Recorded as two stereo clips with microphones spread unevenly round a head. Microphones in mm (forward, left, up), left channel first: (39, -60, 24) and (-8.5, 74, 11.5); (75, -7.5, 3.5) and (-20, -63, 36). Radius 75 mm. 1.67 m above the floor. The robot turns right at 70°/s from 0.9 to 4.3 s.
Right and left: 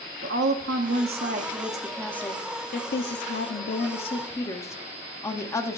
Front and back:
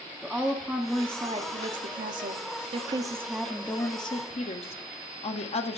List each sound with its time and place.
0.2 s a woman speaking: 120° left, 1.0 m; by 5.8 s straight ahead, 1.0 m